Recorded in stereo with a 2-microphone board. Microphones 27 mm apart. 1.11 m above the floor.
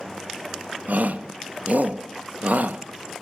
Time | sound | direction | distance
0.9 | a shout | 75° right (ahead or behind) | 1.2 m